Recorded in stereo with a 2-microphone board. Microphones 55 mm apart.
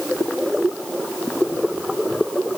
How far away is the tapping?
I don't hear tapping.